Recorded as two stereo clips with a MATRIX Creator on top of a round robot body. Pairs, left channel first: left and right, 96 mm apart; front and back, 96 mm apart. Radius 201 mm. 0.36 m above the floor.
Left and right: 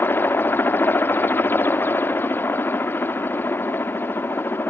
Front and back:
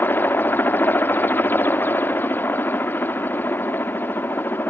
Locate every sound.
0.0 s a helicopter: 45° left